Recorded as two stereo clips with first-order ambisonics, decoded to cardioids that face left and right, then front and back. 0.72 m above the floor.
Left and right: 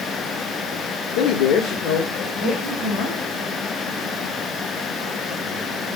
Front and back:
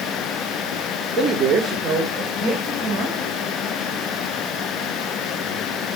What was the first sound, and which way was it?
A man speaking, 105° left.